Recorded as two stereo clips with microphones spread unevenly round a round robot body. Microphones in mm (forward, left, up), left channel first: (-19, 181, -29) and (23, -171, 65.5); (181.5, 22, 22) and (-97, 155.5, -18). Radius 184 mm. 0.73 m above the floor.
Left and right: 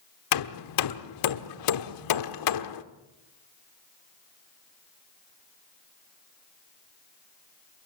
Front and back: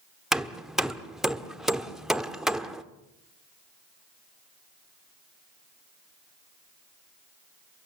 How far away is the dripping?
I don't hear dripping.